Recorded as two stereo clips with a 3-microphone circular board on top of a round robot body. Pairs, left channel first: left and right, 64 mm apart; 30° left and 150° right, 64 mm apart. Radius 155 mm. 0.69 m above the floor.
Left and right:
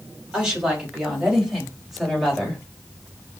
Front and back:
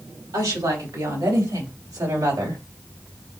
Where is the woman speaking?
165° right, 4 m; by 2.6 s straight behind, 3 m.